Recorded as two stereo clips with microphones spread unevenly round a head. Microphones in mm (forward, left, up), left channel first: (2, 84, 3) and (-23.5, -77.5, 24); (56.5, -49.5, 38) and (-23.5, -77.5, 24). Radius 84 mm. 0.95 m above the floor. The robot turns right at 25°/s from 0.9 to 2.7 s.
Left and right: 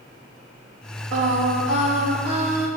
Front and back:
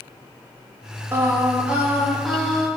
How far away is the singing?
About 1.8 m.